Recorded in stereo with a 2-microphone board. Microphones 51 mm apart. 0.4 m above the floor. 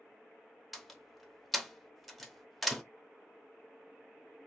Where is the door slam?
Centre (ahead or behind), 0.6 m.